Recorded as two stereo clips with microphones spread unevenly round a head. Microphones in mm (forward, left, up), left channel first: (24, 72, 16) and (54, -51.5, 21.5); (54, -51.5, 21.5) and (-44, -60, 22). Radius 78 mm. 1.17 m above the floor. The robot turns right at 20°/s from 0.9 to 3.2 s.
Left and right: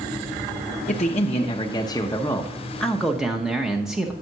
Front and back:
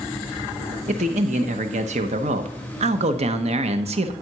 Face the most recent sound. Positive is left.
turn(degrees=-165)